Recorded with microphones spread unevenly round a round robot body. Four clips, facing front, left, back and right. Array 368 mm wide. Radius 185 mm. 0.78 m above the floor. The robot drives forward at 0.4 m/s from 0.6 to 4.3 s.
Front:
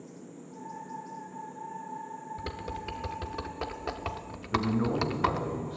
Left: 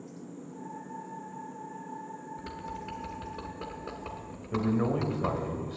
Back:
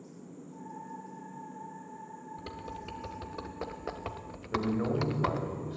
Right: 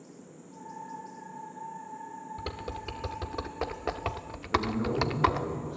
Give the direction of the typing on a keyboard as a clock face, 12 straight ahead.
2 o'clock.